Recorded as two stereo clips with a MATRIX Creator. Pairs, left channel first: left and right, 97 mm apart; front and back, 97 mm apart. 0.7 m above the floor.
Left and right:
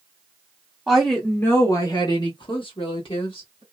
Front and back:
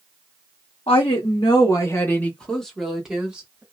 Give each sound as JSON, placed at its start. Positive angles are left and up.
{"t": 0.9, "sound": "a woman speaking", "azimuth_deg": 0, "distance_m": 1.0}